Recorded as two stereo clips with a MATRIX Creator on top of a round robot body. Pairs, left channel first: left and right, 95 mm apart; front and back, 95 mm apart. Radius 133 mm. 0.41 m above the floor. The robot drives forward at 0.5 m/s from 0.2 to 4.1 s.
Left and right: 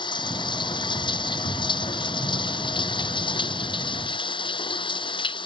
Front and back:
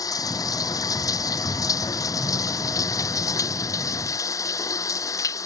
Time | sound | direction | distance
0.0 | running water | 50° left | ?